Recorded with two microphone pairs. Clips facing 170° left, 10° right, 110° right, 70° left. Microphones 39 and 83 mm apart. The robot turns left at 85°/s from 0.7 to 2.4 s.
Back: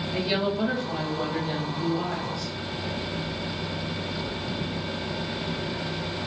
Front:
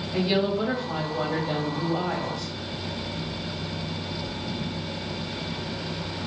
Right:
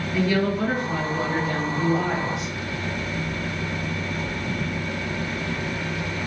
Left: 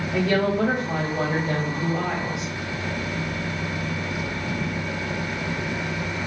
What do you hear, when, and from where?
0.1 s a woman speaking: 80° left, 1.9 m; by 2.5 s 65° right, 1.9 m